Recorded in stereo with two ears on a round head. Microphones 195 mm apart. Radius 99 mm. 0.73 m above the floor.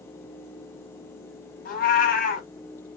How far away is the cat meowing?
About 2 m.